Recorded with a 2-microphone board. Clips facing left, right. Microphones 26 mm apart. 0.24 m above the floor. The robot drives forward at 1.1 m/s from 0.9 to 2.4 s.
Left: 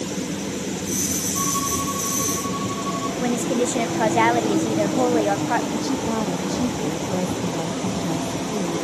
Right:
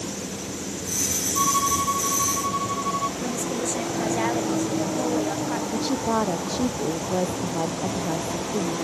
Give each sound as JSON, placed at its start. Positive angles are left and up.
{"t": 1.4, "sound": "a violin", "side_deg": -15}
{"t": 3.2, "sound": "a woman speaking", "side_deg": 40}
{"t": 5.7, "sound": "a woman speaking", "side_deg": -25}